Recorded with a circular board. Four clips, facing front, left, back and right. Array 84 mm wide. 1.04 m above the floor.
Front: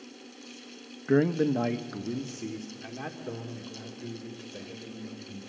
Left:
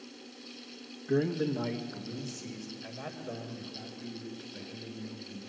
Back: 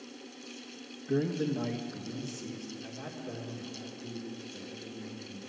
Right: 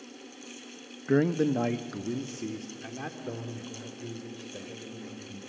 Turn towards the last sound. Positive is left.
turn(degrees=-50)